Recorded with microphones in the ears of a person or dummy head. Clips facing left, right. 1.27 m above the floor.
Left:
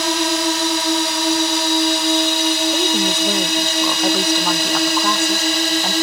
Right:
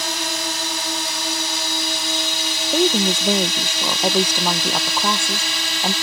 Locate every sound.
0.0 s a drone: 55° left (ahead or behind); by 6.0 s 40° left (ahead or behind)
2.7 s a woman speaking: 10° right (ahead or behind)